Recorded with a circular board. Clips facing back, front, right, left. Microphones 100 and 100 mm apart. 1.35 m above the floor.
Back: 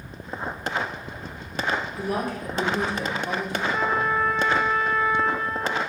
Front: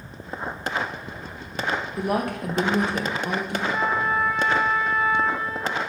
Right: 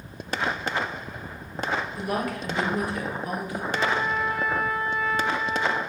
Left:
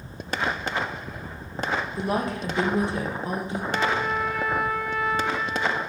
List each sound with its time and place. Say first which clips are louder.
2.0 s a woman speaking: front 3 dB, left 2 dB; 25° left, 1.3 m
3.7 s a trumpet: even, even; 80° left, 1.2 m